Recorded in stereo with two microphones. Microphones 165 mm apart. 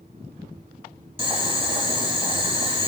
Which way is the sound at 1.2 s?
35° right (ahead or behind).